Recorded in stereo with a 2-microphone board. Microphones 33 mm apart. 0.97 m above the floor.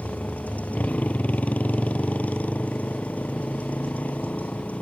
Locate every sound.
0.0 s a motorcycle: 45° left (ahead or behind)